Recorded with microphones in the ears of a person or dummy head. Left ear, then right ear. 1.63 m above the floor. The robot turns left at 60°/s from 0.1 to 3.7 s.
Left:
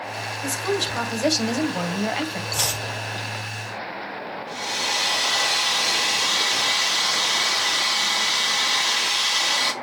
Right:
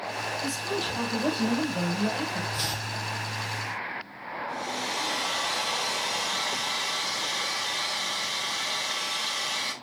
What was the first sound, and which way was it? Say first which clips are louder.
A woman speaking: left 5 dB; 155° left.